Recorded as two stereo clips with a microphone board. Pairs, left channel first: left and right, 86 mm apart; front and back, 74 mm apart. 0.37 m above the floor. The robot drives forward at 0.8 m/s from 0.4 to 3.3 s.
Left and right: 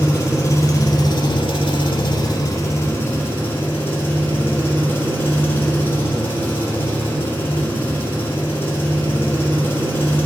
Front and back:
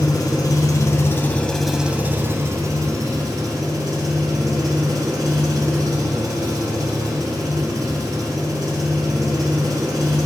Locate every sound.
0.0 s an engine running: 35° left, 1.2 m; by 10.3 s 155° left, 1.5 m